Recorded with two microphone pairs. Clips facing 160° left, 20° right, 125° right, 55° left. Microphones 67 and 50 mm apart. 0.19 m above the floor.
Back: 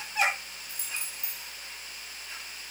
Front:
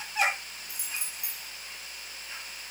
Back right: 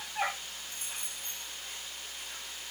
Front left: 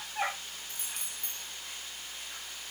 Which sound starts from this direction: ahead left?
Keys jangling, at 0.7 s.